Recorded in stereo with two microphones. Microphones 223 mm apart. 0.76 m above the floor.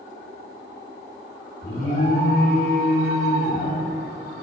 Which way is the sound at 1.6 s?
45° left (ahead or behind).